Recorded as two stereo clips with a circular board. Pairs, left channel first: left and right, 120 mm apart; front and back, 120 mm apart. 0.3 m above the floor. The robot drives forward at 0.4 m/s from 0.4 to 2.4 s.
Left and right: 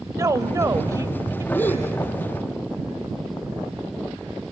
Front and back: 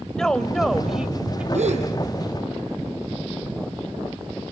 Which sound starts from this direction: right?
A woman speaking, at 0.2 s.